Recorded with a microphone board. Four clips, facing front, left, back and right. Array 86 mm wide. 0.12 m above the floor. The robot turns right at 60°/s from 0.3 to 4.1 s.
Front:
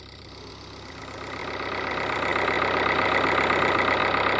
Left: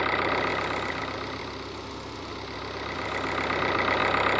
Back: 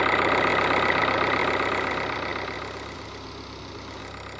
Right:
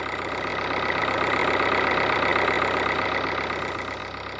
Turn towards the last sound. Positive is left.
turn(degrees=35)